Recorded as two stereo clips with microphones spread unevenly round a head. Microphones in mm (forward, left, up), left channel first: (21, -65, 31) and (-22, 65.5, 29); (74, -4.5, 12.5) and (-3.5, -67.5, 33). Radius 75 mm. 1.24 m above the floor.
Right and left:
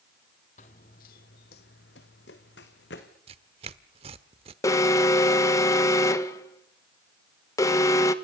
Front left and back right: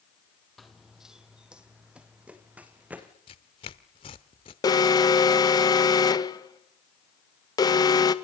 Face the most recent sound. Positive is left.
turn(degrees=-5)